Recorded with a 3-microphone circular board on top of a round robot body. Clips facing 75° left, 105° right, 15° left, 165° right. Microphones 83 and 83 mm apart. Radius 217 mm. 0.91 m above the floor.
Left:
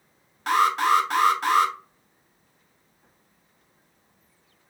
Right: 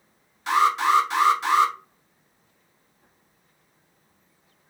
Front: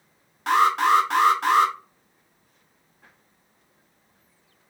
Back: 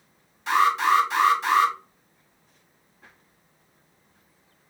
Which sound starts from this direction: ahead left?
An alarm, at 0.5 s.